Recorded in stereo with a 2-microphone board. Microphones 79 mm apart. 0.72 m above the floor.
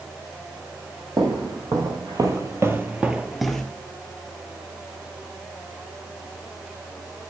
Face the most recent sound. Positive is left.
turn(degrees=10)  # may be behind; listen again after turning